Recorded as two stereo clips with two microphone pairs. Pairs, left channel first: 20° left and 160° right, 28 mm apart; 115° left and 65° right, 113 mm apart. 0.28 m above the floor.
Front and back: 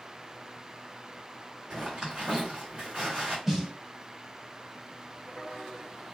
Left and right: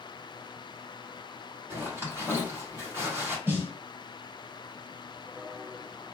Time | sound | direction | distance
1.7 | a zipper | 120° right | 1.8 m
3.5 | a snare drum | 85° right | 0.7 m